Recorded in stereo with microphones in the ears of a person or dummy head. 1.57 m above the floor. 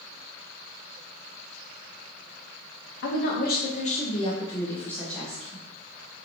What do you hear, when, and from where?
3.0 s a woman speaking: 70° left (ahead or behind), 0.9 m; by 5.6 s centre (ahead or behind), 1.4 m